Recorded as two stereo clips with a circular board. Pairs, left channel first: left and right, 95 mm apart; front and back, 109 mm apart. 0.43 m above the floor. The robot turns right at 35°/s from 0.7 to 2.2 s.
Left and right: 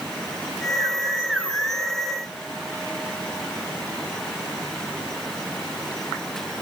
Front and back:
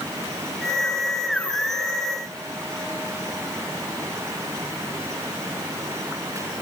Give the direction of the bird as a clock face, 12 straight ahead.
I don't hear a bird.